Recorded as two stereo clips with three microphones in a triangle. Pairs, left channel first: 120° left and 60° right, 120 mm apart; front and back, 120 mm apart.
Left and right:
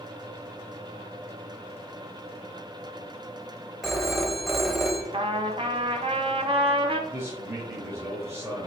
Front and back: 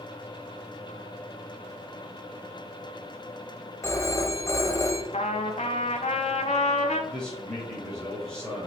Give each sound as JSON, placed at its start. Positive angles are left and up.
{"t": 3.8, "sound": "a phone ringing", "azimuth_deg": 30, "distance_m": 0.5}
{"t": 5.1, "sound": "a trumpet", "azimuth_deg": -20, "distance_m": 0.5}
{"t": 7.1, "sound": "a man speaking", "azimuth_deg": -70, "distance_m": 1.1}